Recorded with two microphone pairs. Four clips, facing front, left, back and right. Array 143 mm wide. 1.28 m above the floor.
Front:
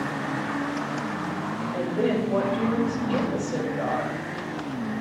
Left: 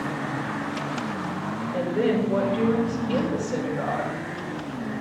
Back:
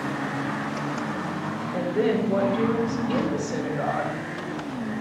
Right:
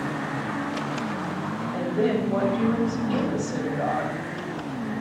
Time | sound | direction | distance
1.7 | a woman speaking | 135° left | 5.5 m